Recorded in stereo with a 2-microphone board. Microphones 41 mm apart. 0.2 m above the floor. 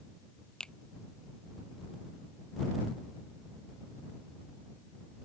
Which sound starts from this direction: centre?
A finger snap, at 0.6 s.